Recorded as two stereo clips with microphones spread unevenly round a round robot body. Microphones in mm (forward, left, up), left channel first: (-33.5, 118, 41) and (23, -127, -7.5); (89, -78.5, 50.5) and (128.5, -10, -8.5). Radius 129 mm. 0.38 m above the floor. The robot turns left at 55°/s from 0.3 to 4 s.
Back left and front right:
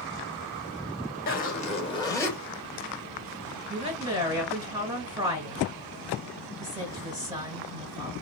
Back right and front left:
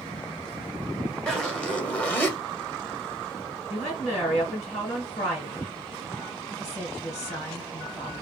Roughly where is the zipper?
Ahead left.